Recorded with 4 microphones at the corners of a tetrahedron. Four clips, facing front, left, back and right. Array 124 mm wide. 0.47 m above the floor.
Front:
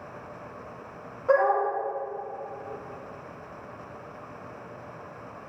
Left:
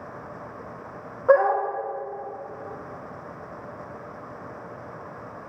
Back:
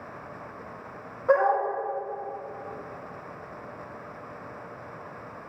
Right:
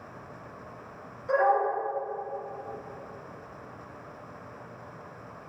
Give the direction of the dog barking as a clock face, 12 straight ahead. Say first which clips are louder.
Left 5 dB, even; 9 o'clock.